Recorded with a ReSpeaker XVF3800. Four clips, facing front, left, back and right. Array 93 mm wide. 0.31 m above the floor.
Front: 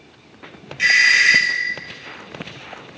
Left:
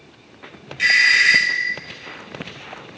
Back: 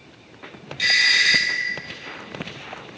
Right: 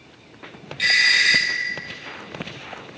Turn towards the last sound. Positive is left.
turn(degrees=35)